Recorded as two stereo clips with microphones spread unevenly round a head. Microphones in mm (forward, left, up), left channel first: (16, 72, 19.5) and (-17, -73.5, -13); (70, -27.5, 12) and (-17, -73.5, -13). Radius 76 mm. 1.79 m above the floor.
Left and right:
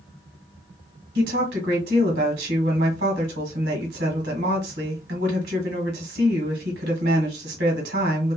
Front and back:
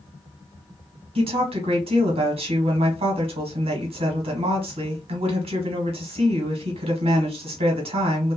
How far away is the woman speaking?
About 1.4 m.